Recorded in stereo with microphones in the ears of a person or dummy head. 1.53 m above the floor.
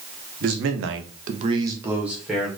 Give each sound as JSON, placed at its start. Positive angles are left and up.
{"t": 0.4, "sound": "a man speaking", "side_deg": -55, "distance_m": 0.8}